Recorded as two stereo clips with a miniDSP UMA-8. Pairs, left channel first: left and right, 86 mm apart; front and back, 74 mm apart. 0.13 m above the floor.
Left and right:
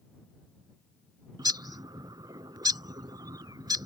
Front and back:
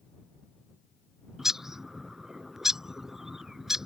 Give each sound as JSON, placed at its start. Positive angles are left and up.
{"t": 1.4, "sound": "a bird", "azimuth_deg": -95}